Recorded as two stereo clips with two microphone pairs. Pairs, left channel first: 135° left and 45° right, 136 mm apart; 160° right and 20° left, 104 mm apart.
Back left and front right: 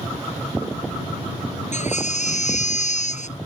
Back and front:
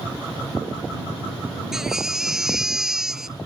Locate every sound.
1.7 s a baby crying: 105° left